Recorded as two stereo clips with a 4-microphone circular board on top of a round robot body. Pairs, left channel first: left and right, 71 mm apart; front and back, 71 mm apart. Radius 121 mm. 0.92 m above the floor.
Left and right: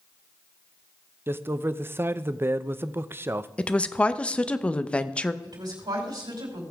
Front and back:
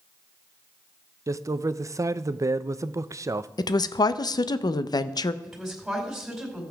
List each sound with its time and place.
1.3 s a man speaking: 145° right, 0.6 m
3.6 s a woman speaking: 15° left, 0.6 m
5.4 s a woman speaking: 95° right, 5 m